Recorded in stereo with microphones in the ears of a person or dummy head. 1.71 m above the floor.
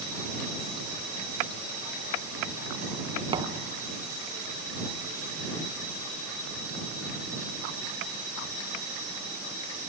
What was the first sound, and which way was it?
A thud, 25° right (ahead or behind).